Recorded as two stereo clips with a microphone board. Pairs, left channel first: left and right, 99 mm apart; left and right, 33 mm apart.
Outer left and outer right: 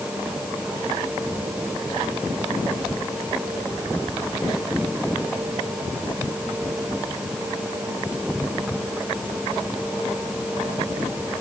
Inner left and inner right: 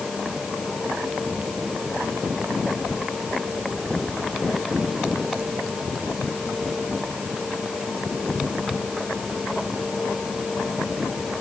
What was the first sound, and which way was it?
Only background noise.